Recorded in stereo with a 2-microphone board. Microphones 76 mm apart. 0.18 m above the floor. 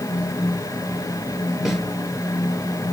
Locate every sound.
1.6 s a snare drum: 5° right (ahead or behind), 3.5 m